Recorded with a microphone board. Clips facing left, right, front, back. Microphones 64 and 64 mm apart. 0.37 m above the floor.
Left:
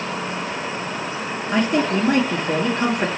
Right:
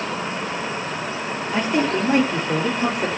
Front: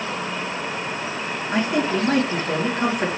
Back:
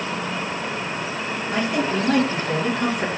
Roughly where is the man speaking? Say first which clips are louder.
Left 2 dB, front 1 dB; ahead left.